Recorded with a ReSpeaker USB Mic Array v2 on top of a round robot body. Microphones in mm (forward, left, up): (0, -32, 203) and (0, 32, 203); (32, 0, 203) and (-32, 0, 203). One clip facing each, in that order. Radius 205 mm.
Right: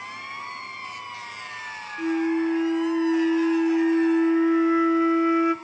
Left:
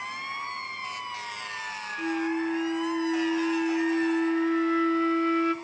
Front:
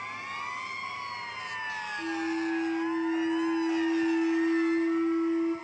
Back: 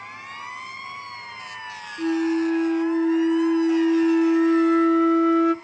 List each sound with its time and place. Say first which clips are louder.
2.0 s a flute: right 5 dB, back 11 dB; 165° right, 0.8 m